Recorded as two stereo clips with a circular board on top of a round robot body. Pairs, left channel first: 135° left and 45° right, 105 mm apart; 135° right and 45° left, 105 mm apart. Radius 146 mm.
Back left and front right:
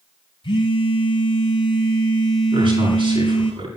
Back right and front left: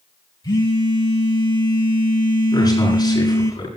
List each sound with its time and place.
0.4 s a phone buzzing: 175° left, 5.5 m
2.5 s a man speaking: 80° right, 10 m